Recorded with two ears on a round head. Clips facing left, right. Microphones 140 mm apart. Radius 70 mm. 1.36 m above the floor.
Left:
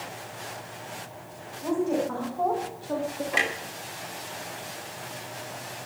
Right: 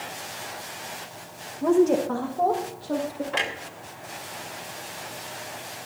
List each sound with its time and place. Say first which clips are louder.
1.6 s a woman speaking: right 6 dB; 65° right (ahead or behind), 1.6 m; by 3.2 s 10° right (ahead or behind), 2.5 m
3.3 s a clunk: even; 10° left (ahead or behind), 2.5 m